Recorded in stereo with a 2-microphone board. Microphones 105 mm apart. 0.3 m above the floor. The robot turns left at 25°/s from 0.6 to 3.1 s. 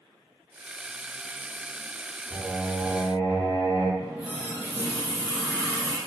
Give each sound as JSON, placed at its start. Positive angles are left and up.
{"t": 2.3, "sound": "singing", "side_deg": 80, "distance_m": 1.7}
{"t": 4.0, "sound": "a running tap", "side_deg": -15, "distance_m": 1.6}